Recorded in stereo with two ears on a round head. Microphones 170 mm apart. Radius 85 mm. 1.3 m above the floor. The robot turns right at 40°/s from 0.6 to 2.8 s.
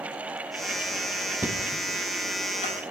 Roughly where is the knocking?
Centre.